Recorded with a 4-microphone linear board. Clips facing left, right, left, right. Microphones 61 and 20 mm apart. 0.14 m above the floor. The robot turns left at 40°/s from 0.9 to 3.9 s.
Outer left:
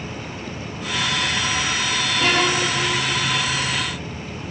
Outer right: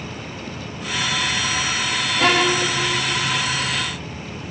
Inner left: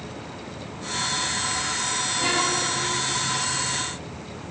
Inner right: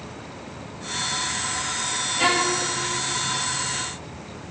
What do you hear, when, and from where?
2.2 s a violin: 85° right, 8.5 m; by 2.7 s 70° right (ahead or behind), 8.5 m